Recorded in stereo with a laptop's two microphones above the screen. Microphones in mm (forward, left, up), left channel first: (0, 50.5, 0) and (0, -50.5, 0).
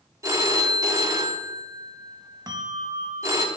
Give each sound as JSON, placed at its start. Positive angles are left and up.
{"t": 0.2, "sound": "a phone ringing", "side_deg": -30, "distance_m": 1.0}
{"t": 2.5, "sound": "a bell", "side_deg": -40, "distance_m": 0.6}